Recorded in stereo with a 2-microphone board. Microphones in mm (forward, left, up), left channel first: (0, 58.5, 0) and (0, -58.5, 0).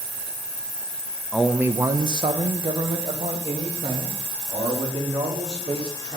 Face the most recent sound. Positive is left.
turn(degrees=-60)  # may be behind; listen again after turning